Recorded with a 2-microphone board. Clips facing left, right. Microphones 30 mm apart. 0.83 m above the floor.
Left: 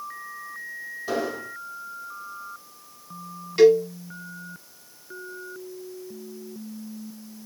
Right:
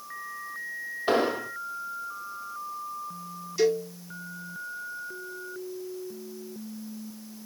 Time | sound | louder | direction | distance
1.1 | an explosion | right 4 dB | 50° right (ahead or behind) | 0.6 m
3.6 | a cowbell | left 9 dB | 50° left (ahead or behind) | 0.9 m